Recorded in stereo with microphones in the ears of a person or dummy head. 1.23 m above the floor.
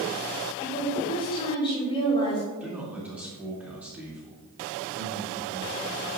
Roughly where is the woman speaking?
Left.